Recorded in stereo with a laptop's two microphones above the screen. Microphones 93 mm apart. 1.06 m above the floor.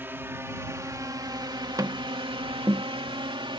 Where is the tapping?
35° right (ahead or behind).